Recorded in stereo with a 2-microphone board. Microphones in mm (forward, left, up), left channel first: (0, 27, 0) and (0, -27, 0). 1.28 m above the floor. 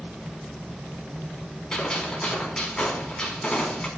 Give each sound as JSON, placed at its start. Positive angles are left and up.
{"t": 1.7, "sound": "a gunshot", "side_deg": 15, "distance_m": 3.5}